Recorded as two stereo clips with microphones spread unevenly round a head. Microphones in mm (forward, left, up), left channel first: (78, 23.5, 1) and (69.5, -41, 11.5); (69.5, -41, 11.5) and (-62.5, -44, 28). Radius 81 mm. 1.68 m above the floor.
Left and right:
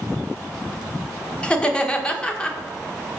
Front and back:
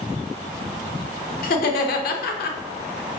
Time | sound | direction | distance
1.4 | laughter | 10° left | 0.7 m